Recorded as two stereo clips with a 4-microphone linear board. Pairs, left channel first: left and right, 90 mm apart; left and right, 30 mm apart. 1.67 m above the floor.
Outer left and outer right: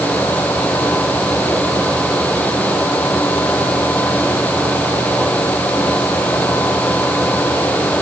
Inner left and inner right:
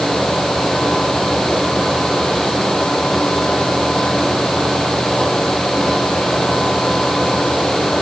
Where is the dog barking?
No dog barking in this recording.